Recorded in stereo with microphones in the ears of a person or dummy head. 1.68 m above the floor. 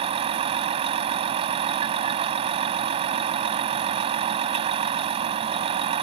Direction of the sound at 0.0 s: 25° right (ahead or behind).